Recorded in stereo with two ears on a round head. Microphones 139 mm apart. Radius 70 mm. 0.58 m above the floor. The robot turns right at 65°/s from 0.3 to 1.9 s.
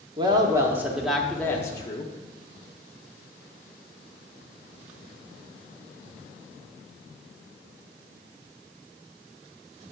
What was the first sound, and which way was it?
A woman speaking, 55° right.